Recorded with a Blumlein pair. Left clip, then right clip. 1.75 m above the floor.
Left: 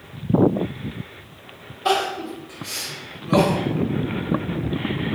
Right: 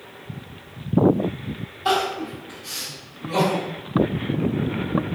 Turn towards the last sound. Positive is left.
turn(degrees=15)